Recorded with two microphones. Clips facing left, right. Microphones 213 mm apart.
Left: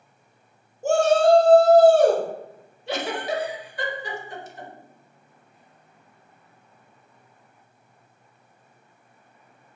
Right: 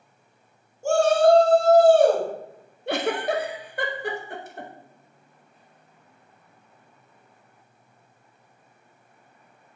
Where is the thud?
I don't hear a thud.